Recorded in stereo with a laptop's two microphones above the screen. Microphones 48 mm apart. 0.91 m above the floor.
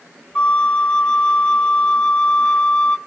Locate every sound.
0.3 s a flute: 25° left (ahead or behind), 0.5 m